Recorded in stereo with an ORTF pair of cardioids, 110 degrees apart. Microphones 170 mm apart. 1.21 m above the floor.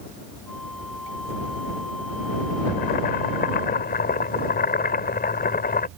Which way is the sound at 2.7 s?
65° left.